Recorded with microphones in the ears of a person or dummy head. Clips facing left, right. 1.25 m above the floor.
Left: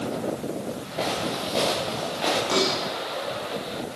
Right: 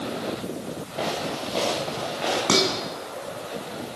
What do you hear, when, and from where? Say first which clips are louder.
1.0 s footsteps: left 1 dB; centre (ahead or behind), 8.5 m; by 2.4 s 5° left (ahead or behind), 10.5 m
2.5 s dishes clattering: right 3 dB; 75° right (ahead or behind), 9 m